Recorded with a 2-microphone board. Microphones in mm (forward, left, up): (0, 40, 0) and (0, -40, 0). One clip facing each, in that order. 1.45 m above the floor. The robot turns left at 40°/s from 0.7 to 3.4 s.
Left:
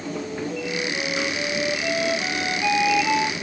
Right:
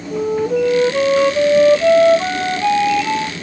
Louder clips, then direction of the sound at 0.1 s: Right 15 dB; 70° right.